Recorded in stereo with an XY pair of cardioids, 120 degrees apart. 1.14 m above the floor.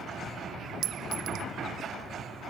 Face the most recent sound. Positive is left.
turn(degrees=-70)